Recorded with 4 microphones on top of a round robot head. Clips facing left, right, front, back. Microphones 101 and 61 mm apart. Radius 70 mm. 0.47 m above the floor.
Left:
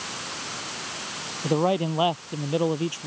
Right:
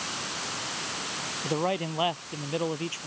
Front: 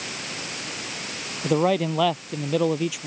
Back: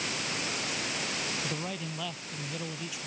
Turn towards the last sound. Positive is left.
turn(degrees=20)